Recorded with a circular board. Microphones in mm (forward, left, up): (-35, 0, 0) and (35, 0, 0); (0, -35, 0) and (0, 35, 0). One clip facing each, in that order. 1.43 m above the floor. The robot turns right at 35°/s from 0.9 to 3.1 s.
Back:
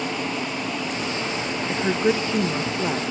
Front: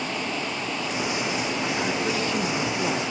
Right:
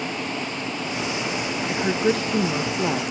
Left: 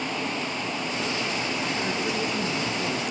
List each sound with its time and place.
1.7 s a woman speaking: 140° right, 1.8 m; by 3.0 s 95° right, 1.8 m